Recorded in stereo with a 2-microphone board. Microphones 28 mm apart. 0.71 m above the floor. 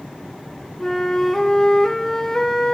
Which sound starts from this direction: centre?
A flute, at 0.8 s.